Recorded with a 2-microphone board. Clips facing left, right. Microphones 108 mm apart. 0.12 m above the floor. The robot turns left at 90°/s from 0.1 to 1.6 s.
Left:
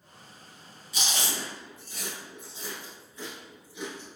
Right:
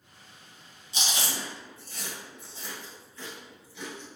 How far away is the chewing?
About 1.0 m.